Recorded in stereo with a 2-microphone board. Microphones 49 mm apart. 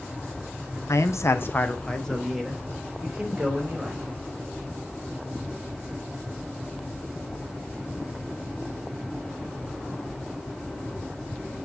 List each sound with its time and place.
0.9 s a man speaking: 80° left, 0.8 m; by 4.0 s 10° right (ahead or behind), 3 m